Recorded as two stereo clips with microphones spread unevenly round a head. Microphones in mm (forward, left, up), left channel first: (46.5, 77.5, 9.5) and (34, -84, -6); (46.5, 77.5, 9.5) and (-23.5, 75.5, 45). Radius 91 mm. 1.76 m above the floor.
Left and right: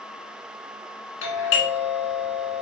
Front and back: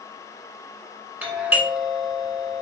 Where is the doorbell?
110° left, 2 m.